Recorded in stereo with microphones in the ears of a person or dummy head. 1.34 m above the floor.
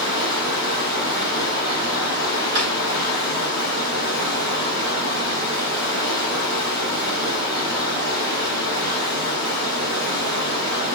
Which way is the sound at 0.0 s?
55° right (ahead or behind).